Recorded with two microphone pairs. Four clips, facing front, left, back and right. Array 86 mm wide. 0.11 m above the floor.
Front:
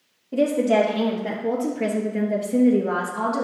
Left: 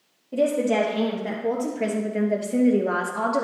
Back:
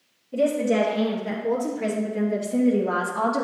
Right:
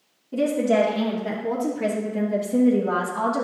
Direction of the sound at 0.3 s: 25° left.